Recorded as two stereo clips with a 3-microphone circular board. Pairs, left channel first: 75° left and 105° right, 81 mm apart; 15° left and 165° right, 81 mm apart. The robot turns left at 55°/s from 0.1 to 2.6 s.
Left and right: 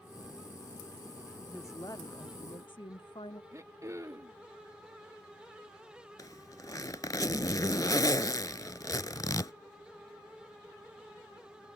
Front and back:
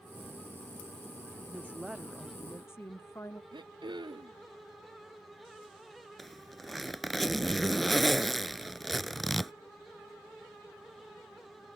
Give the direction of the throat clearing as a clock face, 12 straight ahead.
5 o'clock.